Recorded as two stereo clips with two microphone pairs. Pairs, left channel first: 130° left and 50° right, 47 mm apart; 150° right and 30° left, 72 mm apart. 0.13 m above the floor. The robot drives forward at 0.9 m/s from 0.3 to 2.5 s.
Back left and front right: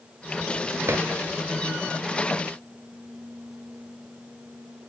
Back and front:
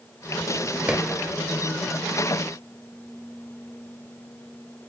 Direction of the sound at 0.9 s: 40° right.